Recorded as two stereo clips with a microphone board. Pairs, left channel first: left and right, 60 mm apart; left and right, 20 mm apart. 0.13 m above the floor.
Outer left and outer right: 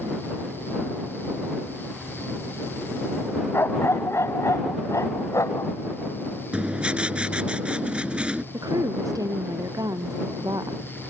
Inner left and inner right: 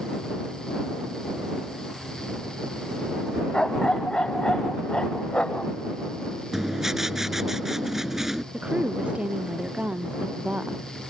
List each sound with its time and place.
3.5 s a dog barking: 45° left (ahead or behind); by 5.7 s 60° left (ahead or behind)
6.5 s writing: 15° right (ahead or behind)
8.5 s a woman speaking: 80° right